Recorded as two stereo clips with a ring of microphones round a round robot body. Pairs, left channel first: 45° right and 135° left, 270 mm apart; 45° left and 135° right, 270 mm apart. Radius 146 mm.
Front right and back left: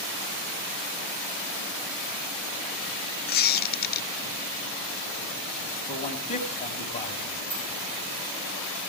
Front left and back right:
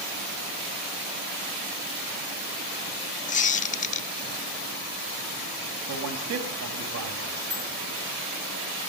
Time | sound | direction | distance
3.3 | a squeak | 5° right | 0.8 m
5.9 | a man speaking | 110° right | 3 m
7.5 | a bicycle bell | 160° left | 8.5 m